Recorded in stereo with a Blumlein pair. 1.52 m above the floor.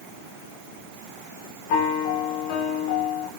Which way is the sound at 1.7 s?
45° left.